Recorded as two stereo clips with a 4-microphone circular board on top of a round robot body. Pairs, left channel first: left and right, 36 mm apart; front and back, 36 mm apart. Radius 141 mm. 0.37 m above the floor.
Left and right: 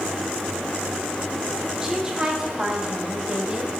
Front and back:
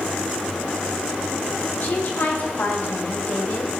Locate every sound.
1.8 s a woman speaking: 15° right, 3 m; by 3.7 s 30° right, 3.5 m